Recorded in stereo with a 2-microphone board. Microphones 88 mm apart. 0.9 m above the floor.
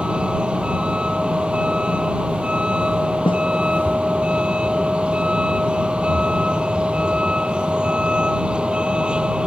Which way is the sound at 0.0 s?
10° right (ahead or behind).